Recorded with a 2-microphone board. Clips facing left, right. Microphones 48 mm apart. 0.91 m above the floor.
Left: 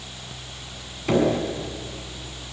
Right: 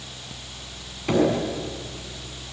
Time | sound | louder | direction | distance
1.1 | knocking | even | 5° left (ahead or behind) | 6.5 m